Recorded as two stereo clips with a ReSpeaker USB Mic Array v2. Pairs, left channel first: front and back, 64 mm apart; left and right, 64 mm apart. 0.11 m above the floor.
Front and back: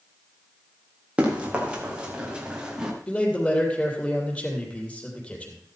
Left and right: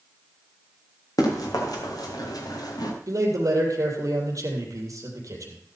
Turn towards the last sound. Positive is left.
turn(degrees=-70)